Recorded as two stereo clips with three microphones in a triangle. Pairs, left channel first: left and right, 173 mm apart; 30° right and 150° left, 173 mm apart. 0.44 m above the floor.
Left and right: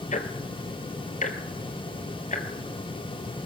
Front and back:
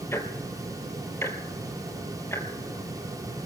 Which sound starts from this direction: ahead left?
Ticking, at 0.1 s.